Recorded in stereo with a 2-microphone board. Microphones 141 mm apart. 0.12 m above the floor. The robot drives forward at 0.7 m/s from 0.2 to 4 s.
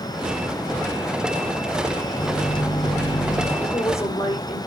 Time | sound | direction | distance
2.2 | a microwave | 30° left (ahead or behind) | 2.5 m
3.6 | a woman speaking | 20° left (ahead or behind) | 5.5 m